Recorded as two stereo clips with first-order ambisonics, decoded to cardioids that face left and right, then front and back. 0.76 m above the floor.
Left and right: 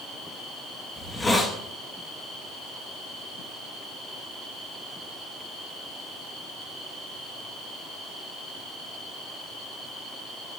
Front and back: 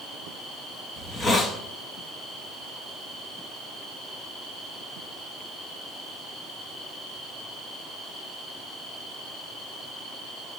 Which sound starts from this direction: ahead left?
A hiss, at 1.0 s.